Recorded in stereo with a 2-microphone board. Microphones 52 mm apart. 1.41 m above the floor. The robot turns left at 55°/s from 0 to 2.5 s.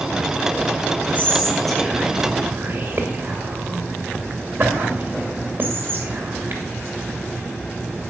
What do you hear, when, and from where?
1.1 s whispering: 35° left (ahead or behind), 2.5 m; by 6.6 s 40° right (ahead or behind), 2.5 m